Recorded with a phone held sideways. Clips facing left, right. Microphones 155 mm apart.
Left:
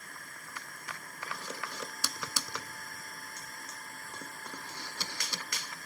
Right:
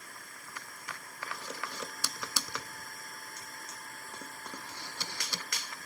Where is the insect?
50° left (ahead or behind).